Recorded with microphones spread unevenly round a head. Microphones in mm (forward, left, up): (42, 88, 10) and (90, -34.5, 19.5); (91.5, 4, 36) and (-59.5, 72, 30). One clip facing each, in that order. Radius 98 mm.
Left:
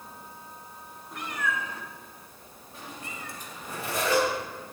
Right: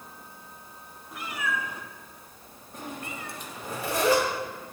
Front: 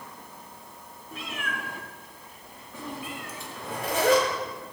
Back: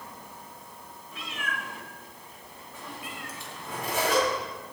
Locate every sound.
1.1 s a cat meowing: 20° left, 2 m; by 3.8 s 65° right, 1.7 m
3.5 s a zipper: 75° right, 5.5 m